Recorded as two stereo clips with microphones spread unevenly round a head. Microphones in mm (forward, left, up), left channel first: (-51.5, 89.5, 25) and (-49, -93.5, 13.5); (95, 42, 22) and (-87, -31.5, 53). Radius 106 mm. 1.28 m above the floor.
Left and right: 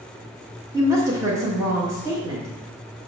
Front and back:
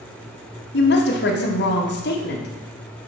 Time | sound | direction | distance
0.7 | a woman speaking | 15° right | 1.8 m